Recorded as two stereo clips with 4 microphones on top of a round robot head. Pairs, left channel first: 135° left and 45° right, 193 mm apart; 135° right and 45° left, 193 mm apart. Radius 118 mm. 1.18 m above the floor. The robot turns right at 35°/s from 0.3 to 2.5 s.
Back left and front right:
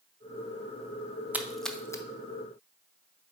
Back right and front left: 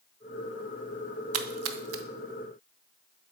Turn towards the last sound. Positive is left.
turn(degrees=80)